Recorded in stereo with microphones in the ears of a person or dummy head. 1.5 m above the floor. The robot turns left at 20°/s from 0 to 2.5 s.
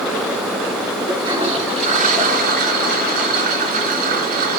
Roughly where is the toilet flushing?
Centre.